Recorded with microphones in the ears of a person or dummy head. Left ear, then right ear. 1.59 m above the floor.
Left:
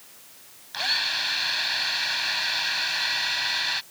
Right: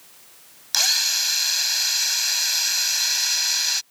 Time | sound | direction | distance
0.7 | a drill | 90° right | ?